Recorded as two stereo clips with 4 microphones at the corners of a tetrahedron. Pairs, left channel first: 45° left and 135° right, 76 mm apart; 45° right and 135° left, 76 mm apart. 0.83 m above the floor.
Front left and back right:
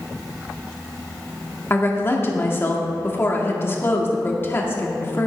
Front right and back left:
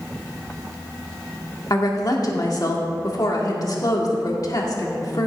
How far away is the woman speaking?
About 1.8 m.